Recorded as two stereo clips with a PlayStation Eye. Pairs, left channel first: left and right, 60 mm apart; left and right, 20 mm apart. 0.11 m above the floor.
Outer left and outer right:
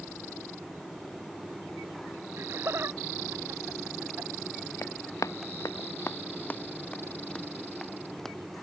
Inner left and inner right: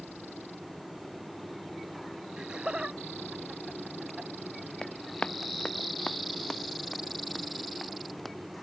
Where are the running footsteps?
55° left (ahead or behind); by 8.4 s 5° left (ahead or behind).